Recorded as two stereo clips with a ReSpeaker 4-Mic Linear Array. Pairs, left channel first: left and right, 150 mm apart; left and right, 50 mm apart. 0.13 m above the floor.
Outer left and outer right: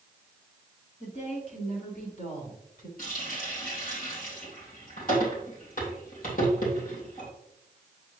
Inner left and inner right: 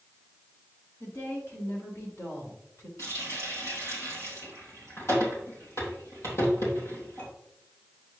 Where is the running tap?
65° left (ahead or behind), 3.5 m.